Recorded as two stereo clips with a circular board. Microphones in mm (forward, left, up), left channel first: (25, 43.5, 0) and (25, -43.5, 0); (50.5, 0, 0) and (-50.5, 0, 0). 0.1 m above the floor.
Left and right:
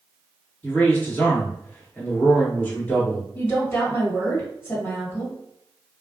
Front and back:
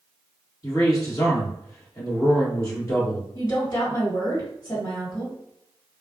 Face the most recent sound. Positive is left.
turn(degrees=35)